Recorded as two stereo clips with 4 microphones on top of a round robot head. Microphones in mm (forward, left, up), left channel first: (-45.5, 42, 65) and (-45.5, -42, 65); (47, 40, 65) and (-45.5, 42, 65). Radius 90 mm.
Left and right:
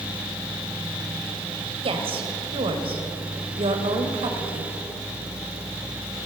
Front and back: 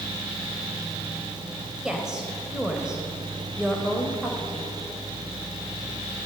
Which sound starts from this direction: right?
A woman speaking, at 1.8 s.